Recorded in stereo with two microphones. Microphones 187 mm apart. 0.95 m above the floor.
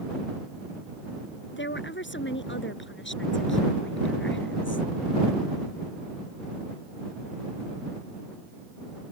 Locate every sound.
1.6 s a woman speaking: 80° left; by 4.9 s 90° left